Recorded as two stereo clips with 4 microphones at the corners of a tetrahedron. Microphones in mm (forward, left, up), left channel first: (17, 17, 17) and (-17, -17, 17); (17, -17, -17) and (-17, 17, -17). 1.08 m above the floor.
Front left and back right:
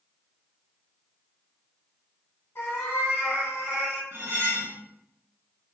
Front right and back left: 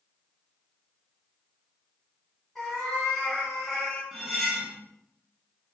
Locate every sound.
2.5 s a cat meowing: 40° left, 1.6 m
4.1 s cutlery clinking: 130° right, 0.8 m